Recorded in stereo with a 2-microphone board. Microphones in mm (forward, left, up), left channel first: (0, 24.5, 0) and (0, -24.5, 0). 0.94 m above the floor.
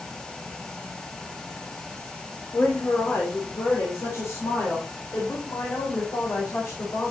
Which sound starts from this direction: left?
A woman speaking, at 2.5 s.